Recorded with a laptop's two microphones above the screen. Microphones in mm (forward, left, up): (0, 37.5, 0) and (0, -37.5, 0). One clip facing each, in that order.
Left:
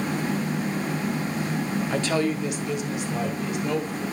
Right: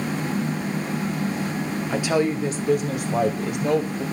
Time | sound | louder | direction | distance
1.9 | a woman speaking | right 4 dB | 5° right (ahead or behind) | 1.0 m